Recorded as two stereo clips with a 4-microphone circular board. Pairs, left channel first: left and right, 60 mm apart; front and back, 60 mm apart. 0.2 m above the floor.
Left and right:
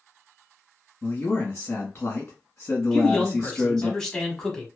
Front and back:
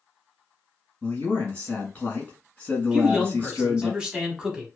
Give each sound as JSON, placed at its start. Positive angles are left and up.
{"t": 1.0, "sound": "a man speaking", "azimuth_deg": 50, "distance_m": 1.3}
{"t": 2.9, "sound": "a man speaking", "azimuth_deg": 150, "distance_m": 1.0}